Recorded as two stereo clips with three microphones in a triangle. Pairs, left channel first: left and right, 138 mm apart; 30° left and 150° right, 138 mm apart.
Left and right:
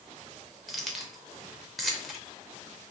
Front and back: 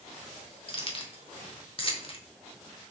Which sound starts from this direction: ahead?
Keys jangling, at 0.7 s.